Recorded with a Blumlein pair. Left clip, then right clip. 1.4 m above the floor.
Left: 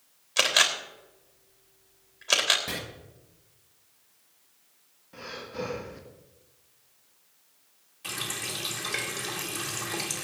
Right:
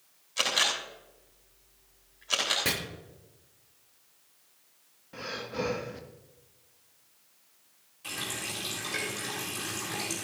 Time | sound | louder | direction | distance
0.4 | a camera shutter | left 4 dB | 60° left | 3.5 m
2.6 | chopping | right 7 dB | 45° right | 6 m
5.1 | breathing | right 2 dB | 10° right | 1.8 m
8.0 | a running tap | left 2 dB | 15° left | 4 m